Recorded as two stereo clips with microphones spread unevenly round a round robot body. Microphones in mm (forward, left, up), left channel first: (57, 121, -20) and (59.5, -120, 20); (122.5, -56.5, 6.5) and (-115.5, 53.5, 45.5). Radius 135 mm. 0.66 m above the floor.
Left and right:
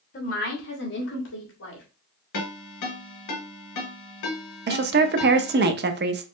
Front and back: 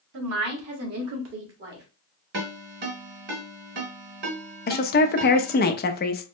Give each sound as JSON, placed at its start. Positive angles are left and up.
{"t": 0.1, "sound": "a woman speaking", "azimuth_deg": 140, "distance_m": 2.0}
{"t": 2.3, "sound": "a ringtone", "azimuth_deg": 100, "distance_m": 2.5}
{"t": 4.7, "sound": "a woman speaking", "azimuth_deg": -50, "distance_m": 0.7}